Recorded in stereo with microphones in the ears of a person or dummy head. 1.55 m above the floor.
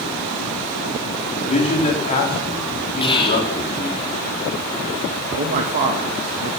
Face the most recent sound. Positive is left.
turn(degrees=-45)  # may be behind; listen again after turning